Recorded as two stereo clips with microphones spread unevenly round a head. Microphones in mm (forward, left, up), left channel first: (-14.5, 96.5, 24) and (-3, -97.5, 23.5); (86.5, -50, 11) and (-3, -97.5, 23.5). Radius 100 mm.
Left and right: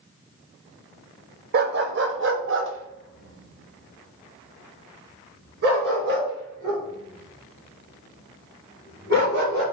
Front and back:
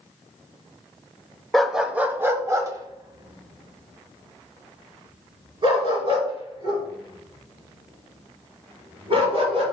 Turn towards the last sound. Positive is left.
turn(degrees=-125)